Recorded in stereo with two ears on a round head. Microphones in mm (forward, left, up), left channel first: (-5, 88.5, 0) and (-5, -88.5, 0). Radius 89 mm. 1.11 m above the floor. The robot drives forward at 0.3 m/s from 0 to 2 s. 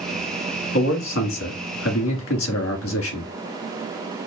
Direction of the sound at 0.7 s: 70° left (ahead or behind).